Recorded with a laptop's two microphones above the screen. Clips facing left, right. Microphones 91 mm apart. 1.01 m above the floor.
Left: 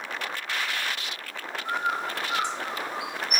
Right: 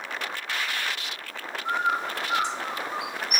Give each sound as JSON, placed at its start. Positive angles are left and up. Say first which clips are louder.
{"t": 1.6, "sound": "a bird", "louder": "right 3 dB", "side_deg": -25, "distance_m": 1.0}